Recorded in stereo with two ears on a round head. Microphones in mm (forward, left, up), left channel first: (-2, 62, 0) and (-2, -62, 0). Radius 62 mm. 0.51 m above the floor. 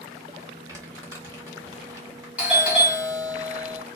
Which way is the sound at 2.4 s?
10° right (ahead or behind).